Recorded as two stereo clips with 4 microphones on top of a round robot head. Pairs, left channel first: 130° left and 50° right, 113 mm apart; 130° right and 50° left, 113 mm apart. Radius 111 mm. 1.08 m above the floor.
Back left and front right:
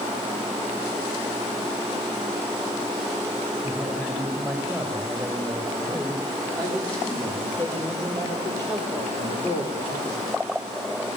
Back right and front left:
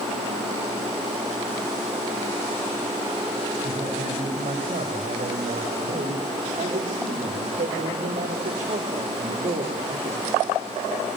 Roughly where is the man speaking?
Ahead left.